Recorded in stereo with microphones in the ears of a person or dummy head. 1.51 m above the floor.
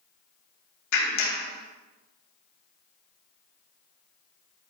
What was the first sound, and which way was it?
A clap, 60° left (ahead or behind).